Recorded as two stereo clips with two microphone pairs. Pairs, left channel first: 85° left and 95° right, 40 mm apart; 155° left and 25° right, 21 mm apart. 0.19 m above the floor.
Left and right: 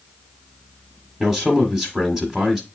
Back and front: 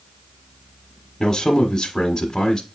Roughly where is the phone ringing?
No phone ringing in this recording.